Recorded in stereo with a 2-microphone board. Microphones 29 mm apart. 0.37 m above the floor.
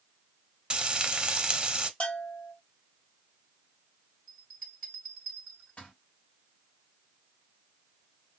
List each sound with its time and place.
0.7 s frying: 35° right (ahead or behind), 0.5 m
2.0 s a bell: 45° left (ahead or behind), 1.7 m
4.3 s a bell: 45° left (ahead or behind), 1.9 m